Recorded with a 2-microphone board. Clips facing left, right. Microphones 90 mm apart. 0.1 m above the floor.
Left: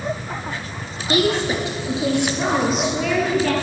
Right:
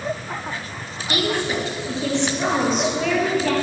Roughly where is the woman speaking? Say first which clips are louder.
Left 4 dB; left.